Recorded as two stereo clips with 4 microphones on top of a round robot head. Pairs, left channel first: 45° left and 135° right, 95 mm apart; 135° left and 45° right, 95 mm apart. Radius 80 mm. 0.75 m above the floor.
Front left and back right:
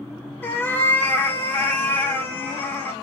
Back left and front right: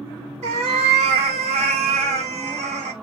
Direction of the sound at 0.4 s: 25° right.